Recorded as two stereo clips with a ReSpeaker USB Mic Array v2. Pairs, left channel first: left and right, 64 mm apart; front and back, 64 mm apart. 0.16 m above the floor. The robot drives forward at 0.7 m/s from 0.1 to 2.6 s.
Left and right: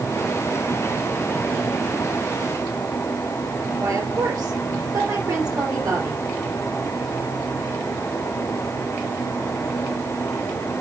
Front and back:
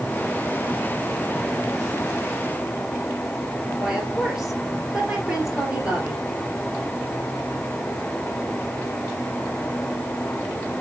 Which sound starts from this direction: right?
A woman speaking, at 3.8 s.